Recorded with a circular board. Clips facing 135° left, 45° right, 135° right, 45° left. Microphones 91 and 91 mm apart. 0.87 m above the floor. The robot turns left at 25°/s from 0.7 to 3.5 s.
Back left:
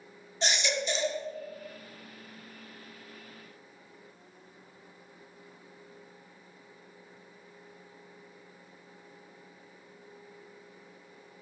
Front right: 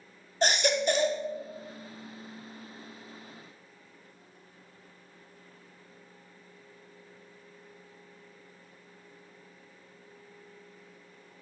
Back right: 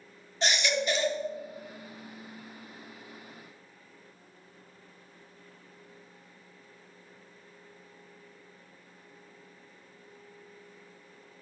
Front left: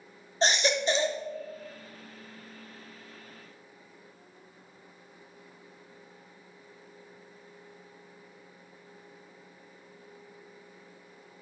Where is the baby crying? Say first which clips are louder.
Front right 5 dB, front left 3 dB; 10° right, 0.7 m; by 1.2 s 20° right, 0.7 m.